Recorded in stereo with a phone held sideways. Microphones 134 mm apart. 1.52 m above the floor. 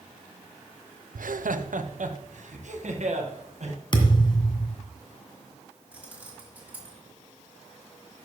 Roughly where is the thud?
Left.